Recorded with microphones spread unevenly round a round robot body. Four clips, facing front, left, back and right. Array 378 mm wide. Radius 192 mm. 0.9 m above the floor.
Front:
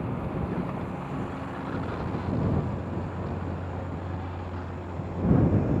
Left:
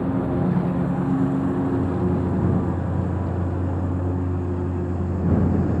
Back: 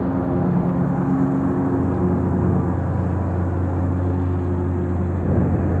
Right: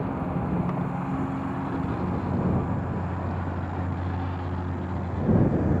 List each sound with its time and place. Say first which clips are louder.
0.0 s a lawn mower: left 6 dB, back 11 dB; 155° left; by 5.8 s 160° left